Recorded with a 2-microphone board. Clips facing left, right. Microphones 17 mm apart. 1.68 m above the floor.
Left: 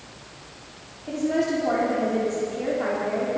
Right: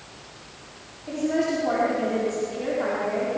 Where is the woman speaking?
5° right (ahead or behind), 5.5 m.